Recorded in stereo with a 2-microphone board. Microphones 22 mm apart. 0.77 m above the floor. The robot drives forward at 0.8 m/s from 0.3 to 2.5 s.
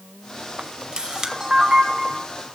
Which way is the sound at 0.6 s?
55° right (ahead or behind).